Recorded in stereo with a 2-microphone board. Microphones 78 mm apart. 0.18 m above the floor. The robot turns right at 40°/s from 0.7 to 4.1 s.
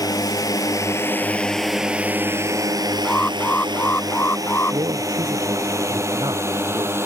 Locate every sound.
0.0 s a drone: 55° left (ahead or behind); by 7.1 s 30° right (ahead or behind)
3.0 s an alarm: 20° left; by 4.8 s 65° left
4.7 s a man speaking: 65° right (ahead or behind)